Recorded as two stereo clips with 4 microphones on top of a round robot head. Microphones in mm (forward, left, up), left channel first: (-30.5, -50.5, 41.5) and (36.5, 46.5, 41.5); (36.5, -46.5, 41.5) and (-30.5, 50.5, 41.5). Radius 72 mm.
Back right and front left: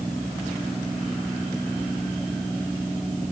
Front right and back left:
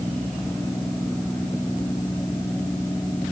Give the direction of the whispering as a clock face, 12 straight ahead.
I don't hear whispering.